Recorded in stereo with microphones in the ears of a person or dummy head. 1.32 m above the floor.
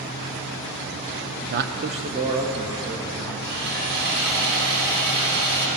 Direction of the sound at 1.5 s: 60° right (ahead or behind).